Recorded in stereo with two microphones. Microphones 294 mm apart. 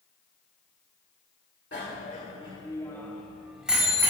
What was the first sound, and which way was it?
A bicycle bell, 35° left (ahead or behind).